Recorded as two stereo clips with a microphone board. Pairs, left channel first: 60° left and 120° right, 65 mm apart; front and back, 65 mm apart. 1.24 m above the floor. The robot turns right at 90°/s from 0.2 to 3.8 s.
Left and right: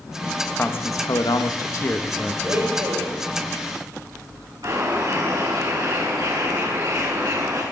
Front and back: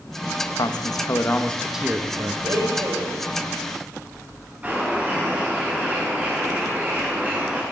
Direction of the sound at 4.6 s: 110° right.